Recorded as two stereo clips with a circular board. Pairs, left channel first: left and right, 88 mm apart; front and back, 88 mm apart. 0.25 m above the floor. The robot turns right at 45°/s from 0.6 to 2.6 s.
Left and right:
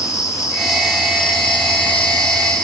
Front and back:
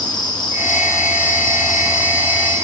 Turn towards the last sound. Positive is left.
turn(degrees=125)